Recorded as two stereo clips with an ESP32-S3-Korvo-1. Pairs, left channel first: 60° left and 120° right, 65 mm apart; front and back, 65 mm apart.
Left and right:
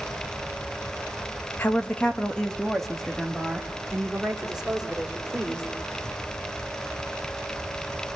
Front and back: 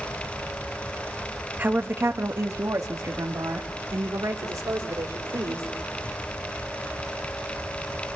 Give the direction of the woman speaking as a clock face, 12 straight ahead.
8 o'clock.